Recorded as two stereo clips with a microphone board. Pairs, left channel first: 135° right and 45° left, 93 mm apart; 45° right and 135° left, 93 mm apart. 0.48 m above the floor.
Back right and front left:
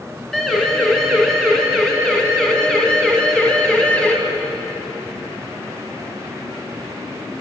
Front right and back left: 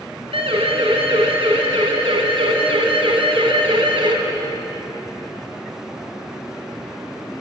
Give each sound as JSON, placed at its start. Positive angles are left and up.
{"t": 0.3, "sound": "a siren", "azimuth_deg": 140, "distance_m": 5.5}